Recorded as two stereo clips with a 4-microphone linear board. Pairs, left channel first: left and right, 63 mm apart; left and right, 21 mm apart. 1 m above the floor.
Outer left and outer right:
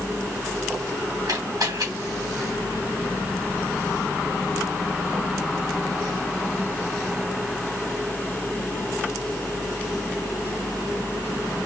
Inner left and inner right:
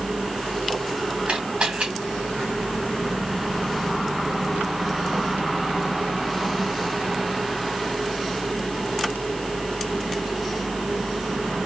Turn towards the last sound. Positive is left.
turn(degrees=-70)  # may be behind; listen again after turning